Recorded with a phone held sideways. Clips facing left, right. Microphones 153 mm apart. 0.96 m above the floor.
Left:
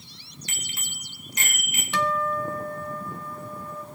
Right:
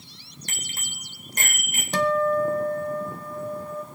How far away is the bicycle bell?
About 2.5 m.